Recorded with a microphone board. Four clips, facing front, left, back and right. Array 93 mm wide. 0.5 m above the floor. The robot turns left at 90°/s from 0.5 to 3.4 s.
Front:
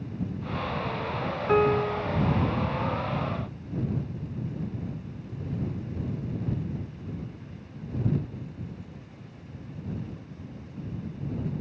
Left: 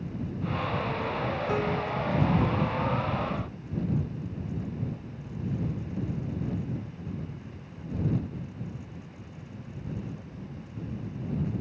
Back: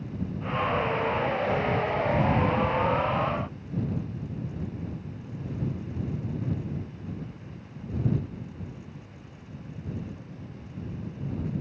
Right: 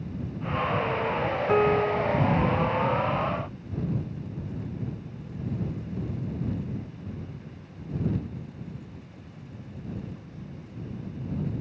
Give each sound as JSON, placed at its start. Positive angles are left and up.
{"t": 1.5, "sound": "a piano", "azimuth_deg": -30}